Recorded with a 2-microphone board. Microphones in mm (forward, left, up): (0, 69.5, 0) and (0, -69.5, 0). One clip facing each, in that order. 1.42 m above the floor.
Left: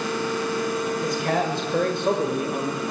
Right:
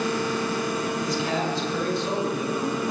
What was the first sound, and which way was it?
A man speaking, 55° left (ahead or behind).